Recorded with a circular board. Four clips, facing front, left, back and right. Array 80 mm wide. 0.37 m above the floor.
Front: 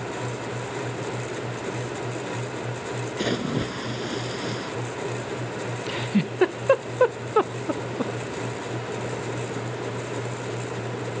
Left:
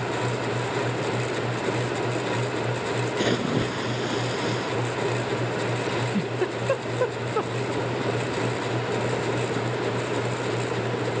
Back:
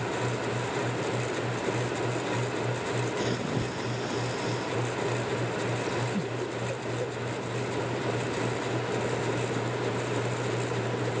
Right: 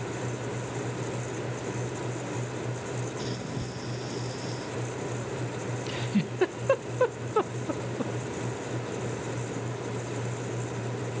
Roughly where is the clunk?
I don't hear a clunk.